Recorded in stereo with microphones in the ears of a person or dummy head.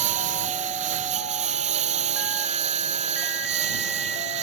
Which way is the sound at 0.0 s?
40° right (ahead or behind).